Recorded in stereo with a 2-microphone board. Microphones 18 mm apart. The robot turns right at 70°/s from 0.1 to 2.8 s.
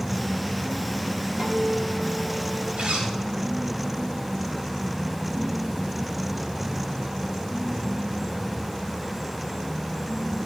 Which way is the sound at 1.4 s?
115° right.